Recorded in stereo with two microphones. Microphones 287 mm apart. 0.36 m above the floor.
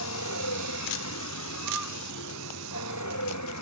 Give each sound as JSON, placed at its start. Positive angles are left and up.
{"t": 0.0, "sound": "a vehicle", "side_deg": 75}